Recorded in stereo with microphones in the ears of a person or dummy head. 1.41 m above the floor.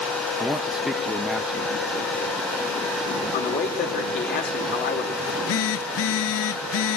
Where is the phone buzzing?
65° left (ahead or behind), 0.7 m.